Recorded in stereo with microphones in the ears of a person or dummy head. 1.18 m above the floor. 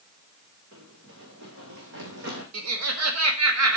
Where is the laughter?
90° right, 1.5 m.